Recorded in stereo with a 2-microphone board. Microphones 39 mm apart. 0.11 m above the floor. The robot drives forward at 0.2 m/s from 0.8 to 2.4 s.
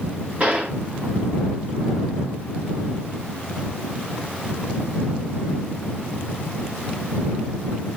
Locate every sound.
0.4 s a gunshot: 30° right (ahead or behind), 1.5 m